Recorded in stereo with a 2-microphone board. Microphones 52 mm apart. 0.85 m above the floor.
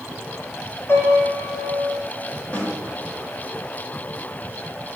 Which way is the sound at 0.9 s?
50° left (ahead or behind).